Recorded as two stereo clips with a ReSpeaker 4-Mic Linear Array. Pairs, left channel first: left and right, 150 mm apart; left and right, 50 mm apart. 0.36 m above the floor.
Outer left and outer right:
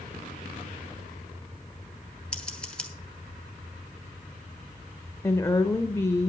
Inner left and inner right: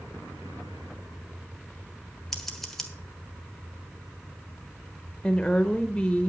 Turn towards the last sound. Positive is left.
turn(degrees=20)  # may be behind; listen again after turning